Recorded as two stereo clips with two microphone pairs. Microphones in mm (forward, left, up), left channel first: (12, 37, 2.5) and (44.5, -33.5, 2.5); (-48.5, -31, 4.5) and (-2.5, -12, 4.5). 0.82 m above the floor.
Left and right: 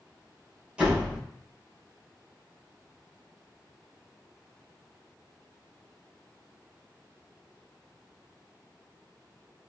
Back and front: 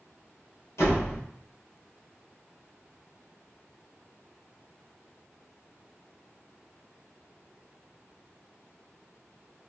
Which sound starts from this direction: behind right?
A door slam, at 0.8 s.